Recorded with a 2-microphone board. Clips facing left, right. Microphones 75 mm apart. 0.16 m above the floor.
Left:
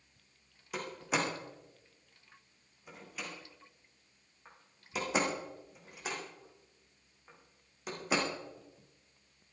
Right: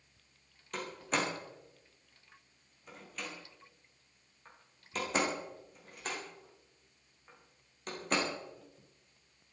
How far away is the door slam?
About 5 m.